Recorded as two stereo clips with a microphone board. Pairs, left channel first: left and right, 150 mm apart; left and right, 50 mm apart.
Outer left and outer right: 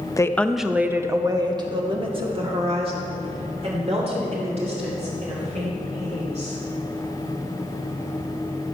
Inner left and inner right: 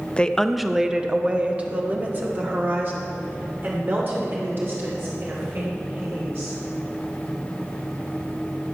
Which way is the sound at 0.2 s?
25° left (ahead or behind).